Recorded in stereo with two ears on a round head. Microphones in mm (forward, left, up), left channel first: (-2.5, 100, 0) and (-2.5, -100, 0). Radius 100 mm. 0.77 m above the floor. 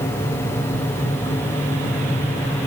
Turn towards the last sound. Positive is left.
No sound to turn to.